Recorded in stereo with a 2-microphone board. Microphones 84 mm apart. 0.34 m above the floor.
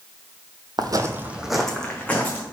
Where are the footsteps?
60° right (ahead or behind), 0.6 m; by 2.4 s 20° left (ahead or behind), 1.5 m.